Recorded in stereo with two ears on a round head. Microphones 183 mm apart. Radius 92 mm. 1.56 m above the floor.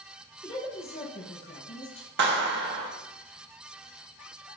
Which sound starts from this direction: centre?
A woman speaking, at 0.4 s.